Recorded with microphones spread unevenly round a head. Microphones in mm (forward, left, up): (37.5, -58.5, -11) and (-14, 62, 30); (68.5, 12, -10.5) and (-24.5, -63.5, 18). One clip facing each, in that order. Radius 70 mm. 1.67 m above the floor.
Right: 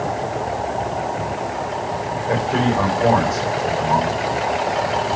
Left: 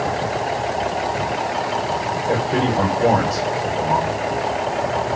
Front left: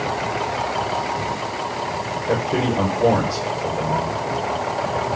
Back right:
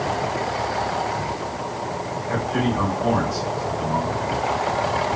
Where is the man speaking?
50° left, 7 m.